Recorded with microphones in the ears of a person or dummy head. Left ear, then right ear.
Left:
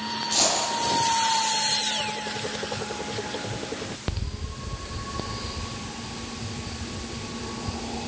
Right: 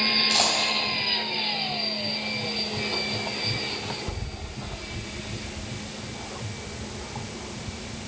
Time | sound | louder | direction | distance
0.3 | a dropped coin | right 2 dB | 35° right (ahead or behind) | 3.5 m